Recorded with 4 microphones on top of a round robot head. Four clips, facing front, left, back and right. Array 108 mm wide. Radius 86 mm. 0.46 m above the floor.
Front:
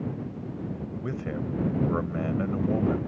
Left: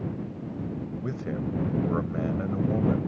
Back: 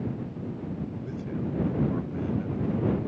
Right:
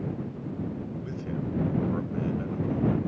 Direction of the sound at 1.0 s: 35° left.